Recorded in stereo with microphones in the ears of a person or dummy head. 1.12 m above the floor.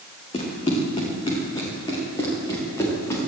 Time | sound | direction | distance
0.3 | running footsteps | 35° left (ahead or behind) | 4 m